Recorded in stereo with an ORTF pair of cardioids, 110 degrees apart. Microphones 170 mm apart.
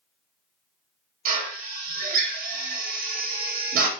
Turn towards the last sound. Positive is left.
turn(degrees=-70)